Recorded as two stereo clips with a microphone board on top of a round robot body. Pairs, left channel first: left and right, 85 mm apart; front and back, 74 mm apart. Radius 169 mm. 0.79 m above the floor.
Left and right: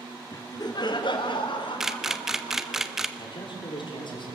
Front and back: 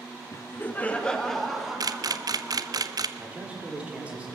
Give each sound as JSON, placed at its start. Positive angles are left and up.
{"t": 0.3, "sound": "laughter", "azimuth_deg": 45, "distance_m": 1.7}
{"t": 1.8, "sound": "a camera shutter", "azimuth_deg": -175, "distance_m": 1.1}
{"t": 3.2, "sound": "a man speaking", "azimuth_deg": 110, "distance_m": 4.0}